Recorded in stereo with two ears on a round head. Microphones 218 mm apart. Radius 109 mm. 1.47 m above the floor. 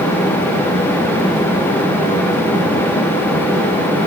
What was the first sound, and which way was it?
Only background noise.